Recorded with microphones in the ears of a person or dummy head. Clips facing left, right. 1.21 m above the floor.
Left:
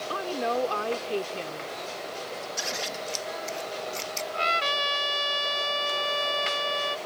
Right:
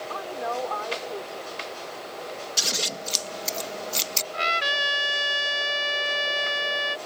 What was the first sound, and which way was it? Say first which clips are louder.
A woman speaking: left 3 dB; 45° left (ahead or behind).